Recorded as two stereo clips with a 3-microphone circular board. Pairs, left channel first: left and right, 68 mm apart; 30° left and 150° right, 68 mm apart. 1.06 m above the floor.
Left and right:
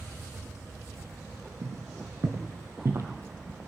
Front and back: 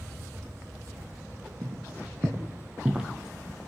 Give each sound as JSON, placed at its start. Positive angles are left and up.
{"t": 1.6, "sound": "footsteps", "azimuth_deg": -110, "distance_m": 2.0}